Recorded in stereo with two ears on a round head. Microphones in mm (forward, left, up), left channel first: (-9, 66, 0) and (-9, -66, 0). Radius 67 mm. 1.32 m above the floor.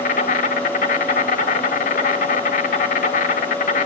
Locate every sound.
0.0 s an insect: 60° left (ahead or behind), 2 m